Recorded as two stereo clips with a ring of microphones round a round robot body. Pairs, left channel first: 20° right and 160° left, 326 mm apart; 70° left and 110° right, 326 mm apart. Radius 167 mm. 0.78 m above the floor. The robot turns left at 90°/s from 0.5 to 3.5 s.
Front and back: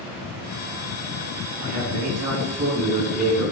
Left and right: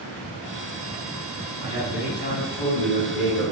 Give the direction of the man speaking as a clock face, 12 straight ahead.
6 o'clock.